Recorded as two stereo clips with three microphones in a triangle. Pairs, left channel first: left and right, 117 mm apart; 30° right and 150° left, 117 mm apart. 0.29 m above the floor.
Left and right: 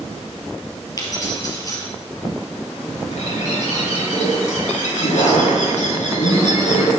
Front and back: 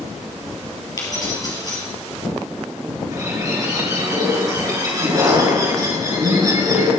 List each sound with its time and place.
1.0 s keys jangling: 30° left, 4 m
3.1 s a bird: 90° left, 5.5 m